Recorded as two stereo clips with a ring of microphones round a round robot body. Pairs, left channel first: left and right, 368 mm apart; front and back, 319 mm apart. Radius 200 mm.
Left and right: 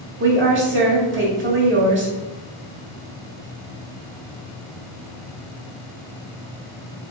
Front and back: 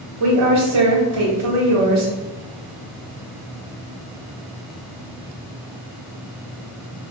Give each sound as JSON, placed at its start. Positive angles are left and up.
{"t": 0.2, "sound": "a woman speaking", "azimuth_deg": -145, "distance_m": 1.5}